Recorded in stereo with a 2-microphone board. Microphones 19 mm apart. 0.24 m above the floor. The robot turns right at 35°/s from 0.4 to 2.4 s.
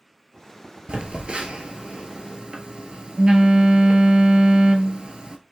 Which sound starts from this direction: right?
A phone buzzing, at 0.9 s.